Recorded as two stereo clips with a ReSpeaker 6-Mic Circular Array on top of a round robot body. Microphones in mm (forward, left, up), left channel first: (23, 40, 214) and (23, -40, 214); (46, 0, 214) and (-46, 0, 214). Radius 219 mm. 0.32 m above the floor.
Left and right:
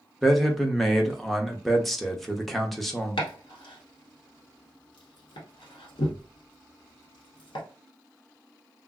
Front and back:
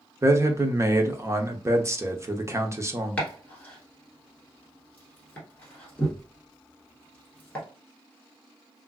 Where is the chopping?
75° left, 1.0 m.